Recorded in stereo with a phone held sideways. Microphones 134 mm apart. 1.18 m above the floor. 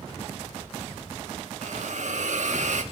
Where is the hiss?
70° right (ahead or behind), 1.3 m.